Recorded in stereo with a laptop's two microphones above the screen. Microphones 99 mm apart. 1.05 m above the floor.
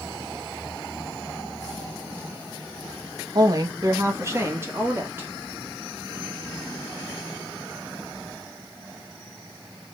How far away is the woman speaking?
About 0.8 m.